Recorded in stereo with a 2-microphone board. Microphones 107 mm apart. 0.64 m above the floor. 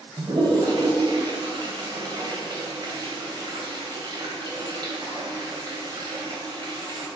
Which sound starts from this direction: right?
A toilet flushing, at 0.2 s.